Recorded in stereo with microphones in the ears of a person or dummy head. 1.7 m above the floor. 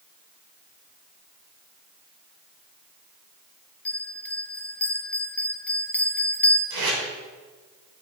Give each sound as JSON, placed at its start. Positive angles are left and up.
{"t": 3.9, "sound": "a bell", "side_deg": 10, "distance_m": 1.1}
{"t": 6.7, "sound": "tape being pulled", "side_deg": -75, "distance_m": 3.5}